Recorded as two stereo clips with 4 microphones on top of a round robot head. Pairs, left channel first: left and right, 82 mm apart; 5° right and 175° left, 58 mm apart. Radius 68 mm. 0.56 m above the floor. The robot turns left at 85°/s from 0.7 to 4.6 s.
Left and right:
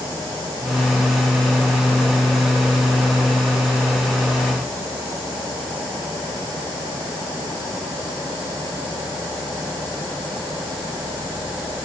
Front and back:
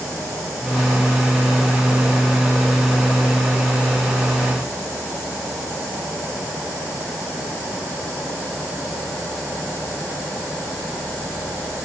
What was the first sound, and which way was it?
Only background noise.